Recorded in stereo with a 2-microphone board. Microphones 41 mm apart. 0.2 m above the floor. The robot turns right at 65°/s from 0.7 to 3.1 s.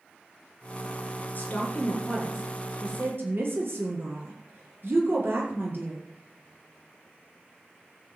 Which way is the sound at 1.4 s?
50° left (ahead or behind).